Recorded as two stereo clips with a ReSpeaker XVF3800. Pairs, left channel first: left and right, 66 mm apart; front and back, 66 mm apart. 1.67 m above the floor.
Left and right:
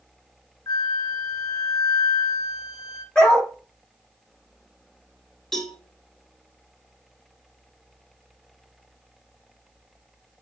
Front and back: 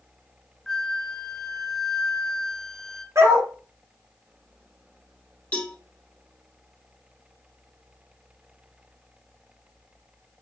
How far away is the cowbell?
About 1.2 m.